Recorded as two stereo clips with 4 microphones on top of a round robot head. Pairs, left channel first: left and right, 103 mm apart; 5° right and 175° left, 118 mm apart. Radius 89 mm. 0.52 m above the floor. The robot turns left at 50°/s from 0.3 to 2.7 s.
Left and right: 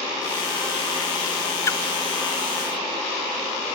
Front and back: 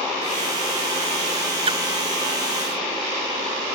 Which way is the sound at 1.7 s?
145° left.